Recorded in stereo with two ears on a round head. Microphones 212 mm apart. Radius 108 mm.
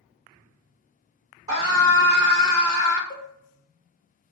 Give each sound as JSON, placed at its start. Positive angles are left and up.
{"t": 1.5, "sound": "a scream", "side_deg": -25, "distance_m": 1.6}
{"t": 3.1, "sound": "a cowbell", "side_deg": 20, "distance_m": 0.8}